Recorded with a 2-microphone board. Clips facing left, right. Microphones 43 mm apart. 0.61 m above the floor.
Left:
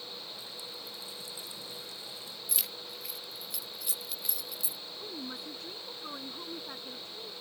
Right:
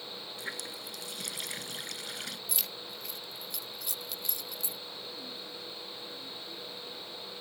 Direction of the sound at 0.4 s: 80° right.